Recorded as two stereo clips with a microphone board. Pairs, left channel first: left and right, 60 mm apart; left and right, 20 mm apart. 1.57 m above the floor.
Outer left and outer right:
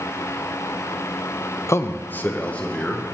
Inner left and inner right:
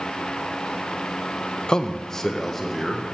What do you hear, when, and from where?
1.7 s a man speaking: 50° left (ahead or behind), 0.6 m; by 3.0 s 20° left (ahead or behind), 1.8 m